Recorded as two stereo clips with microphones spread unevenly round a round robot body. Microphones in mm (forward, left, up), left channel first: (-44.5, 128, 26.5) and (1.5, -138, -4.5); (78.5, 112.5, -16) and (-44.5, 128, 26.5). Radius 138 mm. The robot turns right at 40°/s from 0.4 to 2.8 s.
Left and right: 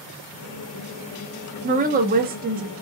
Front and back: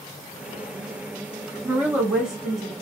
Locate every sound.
1.6 s a woman speaking: 100° right, 0.7 m; by 2.7 s 60° right, 0.7 m